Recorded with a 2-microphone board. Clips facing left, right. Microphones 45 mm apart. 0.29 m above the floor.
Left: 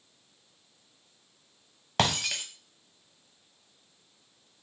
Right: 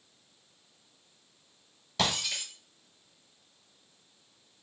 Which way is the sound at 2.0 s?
55° left (ahead or behind).